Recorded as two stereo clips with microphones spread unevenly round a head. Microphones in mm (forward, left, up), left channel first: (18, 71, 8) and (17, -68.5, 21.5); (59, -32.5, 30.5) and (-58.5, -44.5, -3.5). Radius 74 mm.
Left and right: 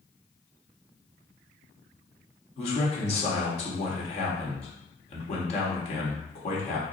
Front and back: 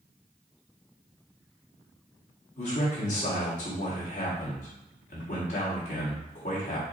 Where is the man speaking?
50° left, 1.7 m.